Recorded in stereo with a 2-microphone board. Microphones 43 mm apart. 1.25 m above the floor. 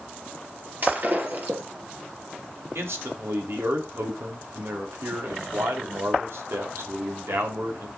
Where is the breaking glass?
45° right (ahead or behind), 3.5 m.